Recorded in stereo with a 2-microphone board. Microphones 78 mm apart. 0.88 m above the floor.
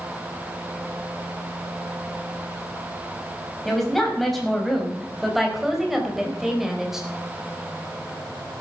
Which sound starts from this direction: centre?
A woman speaking, at 3.6 s.